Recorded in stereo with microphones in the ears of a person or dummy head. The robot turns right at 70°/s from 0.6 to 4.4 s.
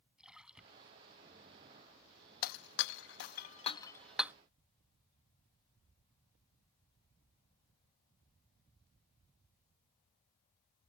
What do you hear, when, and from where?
0.2 s a splash: centre (ahead or behind); by 1.0 s 25° right (ahead or behind)
2.4 s breaking glass: 45° left (ahead or behind); by 4.3 s 10° right (ahead or behind)